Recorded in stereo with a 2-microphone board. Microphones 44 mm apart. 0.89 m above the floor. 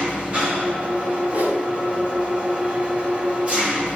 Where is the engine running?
30° right (ahead or behind), 1.5 m.